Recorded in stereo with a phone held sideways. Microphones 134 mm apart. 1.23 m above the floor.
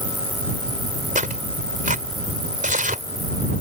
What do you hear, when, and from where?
1.1 s tearing paper: 75° right (ahead or behind)